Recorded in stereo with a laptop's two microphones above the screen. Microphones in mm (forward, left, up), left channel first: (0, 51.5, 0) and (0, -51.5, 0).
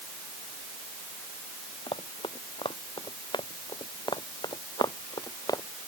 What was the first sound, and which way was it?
Running footsteps, 55° left (ahead or behind).